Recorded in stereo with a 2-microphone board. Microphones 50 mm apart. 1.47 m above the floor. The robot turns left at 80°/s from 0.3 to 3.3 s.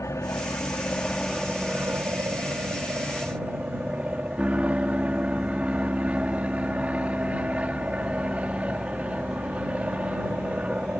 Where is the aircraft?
85° left; by 11.0 s 155° right.